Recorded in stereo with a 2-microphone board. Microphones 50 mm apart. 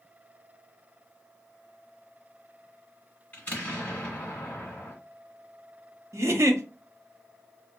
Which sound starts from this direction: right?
A giggle, at 6.1 s.